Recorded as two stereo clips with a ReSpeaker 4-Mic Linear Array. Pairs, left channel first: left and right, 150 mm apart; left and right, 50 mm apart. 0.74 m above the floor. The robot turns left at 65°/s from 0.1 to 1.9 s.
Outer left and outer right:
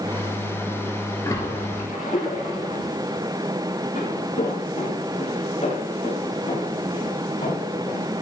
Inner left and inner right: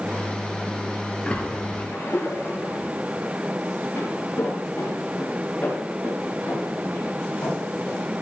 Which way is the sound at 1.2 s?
20° left (ahead or behind).